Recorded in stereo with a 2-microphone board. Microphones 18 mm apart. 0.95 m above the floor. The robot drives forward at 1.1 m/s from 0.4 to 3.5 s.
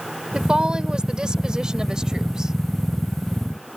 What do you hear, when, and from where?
0.3 s a woman speaking: 60° right (ahead or behind); by 2.5 s 35° right (ahead or behind)